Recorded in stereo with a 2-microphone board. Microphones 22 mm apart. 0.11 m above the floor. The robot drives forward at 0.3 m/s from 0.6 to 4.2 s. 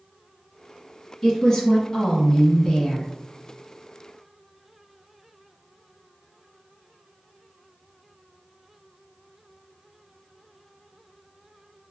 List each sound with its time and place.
1.2 s a woman speaking: 25° left (ahead or behind), 1.4 m; by 3.1 s 30° left (ahead or behind), 1.2 m